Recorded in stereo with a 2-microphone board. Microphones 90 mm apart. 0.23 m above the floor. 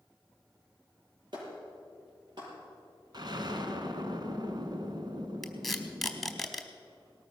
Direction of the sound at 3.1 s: 55° right (ahead or behind).